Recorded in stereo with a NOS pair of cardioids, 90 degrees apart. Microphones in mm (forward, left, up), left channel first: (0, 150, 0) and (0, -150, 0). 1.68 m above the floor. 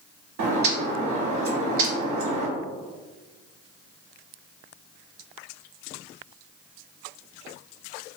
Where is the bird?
65° right, 0.8 m.